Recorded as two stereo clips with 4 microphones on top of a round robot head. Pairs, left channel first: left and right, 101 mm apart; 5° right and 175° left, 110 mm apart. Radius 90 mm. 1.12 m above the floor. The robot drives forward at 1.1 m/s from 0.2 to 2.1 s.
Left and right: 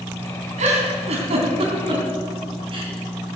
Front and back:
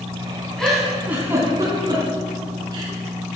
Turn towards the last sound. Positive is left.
turn(degrees=-125)